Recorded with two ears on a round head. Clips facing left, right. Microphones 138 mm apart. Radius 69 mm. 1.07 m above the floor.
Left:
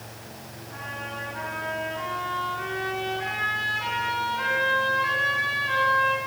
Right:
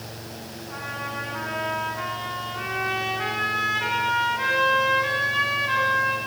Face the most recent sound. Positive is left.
turn(degrees=-65)  # may be behind; listen again after turning